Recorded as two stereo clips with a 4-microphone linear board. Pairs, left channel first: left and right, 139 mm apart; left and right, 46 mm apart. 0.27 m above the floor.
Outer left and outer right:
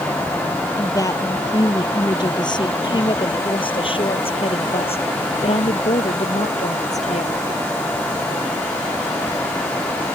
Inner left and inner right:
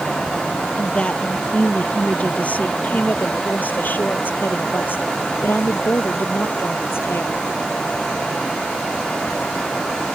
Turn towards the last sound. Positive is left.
turn(degrees=55)  # may be behind; listen again after turning